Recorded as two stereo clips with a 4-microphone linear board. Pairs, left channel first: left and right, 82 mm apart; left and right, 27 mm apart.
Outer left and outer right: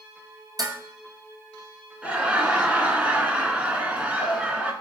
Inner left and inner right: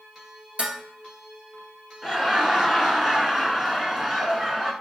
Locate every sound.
0.6 s dishes clattering: 50° right (ahead or behind), 1.5 m
2.0 s laughter: 15° right (ahead or behind), 1.0 m